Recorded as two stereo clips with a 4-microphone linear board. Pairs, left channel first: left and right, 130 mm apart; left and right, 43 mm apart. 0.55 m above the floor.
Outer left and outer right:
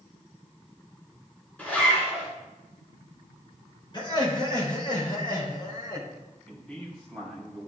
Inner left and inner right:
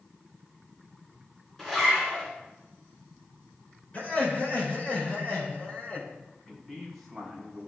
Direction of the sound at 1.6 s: 10° left (ahead or behind).